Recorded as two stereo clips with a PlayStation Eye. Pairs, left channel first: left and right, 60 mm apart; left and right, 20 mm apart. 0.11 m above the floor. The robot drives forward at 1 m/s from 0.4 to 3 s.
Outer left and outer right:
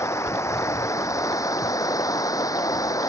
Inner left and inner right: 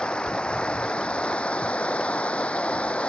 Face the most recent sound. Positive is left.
turn(degrees=70)  # may be behind; listen again after turning